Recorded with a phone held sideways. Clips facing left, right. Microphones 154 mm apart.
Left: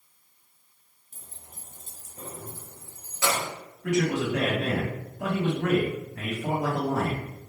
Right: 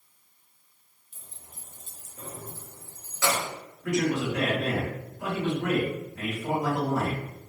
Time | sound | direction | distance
1.1 | keys jangling | 40° left (ahead or behind) | 0.7 m
3.8 | a man speaking | 75° left (ahead or behind) | 1.9 m